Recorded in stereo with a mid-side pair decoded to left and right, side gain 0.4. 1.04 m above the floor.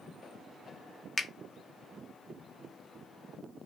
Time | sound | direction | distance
1.2 | a finger snap | 30° left | 0.6 m